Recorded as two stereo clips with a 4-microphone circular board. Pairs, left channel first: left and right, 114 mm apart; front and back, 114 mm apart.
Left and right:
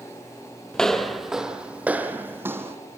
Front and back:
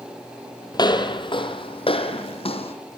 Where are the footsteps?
10° left, 1.6 m; by 2.8 s 25° right, 2.5 m.